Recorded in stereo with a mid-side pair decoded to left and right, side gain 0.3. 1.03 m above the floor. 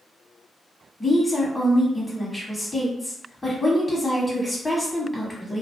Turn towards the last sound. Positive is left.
turn(degrees=25)